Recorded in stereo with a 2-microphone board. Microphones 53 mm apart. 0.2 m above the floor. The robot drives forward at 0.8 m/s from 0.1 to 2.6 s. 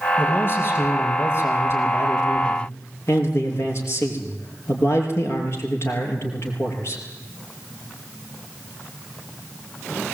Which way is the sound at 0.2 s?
40° left (ahead or behind).